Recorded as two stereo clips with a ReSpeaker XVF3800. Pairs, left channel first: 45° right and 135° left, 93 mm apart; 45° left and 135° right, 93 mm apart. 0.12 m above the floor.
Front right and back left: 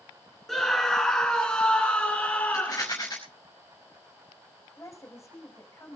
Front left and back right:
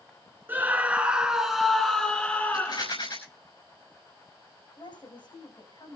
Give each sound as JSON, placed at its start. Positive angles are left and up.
{"t": 0.5, "sound": "a scream", "azimuth_deg": -125, "distance_m": 1.7}
{"t": 2.5, "sound": "a rattle", "azimuth_deg": 5, "distance_m": 5.5}
{"t": 4.8, "sound": "a woman speaking", "azimuth_deg": 15, "distance_m": 7.0}